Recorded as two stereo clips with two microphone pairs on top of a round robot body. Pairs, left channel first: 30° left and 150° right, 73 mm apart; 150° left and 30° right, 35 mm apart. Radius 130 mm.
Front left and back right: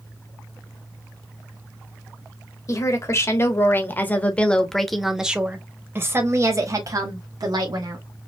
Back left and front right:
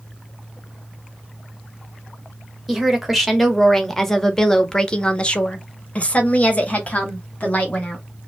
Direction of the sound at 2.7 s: 45° left.